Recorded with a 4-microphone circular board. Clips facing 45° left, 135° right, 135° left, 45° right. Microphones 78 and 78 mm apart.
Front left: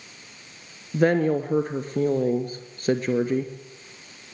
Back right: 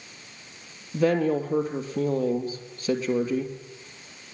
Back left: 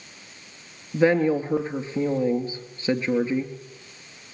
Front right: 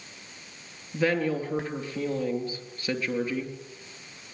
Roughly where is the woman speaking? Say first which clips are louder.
Front left 2 dB, back left 6 dB; left.